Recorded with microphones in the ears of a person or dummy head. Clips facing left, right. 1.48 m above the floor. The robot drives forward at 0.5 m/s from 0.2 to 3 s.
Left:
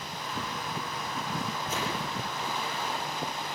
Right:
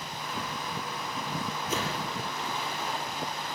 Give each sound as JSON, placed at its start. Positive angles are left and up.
{"t": 1.7, "sound": "a whoosh", "side_deg": -70, "distance_m": 6.5}